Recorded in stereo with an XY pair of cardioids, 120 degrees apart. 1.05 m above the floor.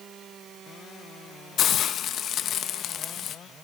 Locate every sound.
1.6 s a hiss: 55° left, 0.8 m